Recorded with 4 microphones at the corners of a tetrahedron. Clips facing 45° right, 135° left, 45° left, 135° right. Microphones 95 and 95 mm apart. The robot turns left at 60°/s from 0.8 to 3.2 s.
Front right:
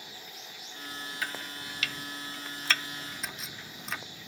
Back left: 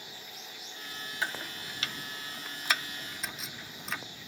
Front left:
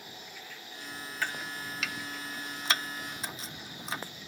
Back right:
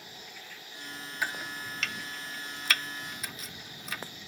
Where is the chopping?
165° left; by 4.0 s 45° left.